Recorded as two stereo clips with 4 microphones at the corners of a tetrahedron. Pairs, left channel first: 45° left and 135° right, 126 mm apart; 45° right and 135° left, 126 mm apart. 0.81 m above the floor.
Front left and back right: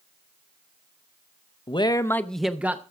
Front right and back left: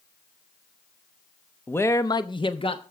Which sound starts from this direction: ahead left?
A man speaking, at 1.7 s.